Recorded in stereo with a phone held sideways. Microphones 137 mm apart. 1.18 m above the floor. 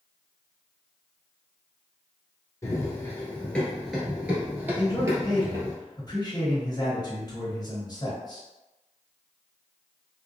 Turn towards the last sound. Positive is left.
turn(degrees=30)  # may be behind; listen again after turning